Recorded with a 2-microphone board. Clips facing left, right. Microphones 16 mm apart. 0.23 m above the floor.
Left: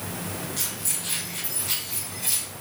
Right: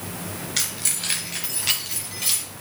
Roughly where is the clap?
No clap in this recording.